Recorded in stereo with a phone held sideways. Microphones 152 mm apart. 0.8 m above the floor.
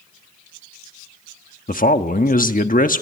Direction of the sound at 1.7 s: 65° left (ahead or behind).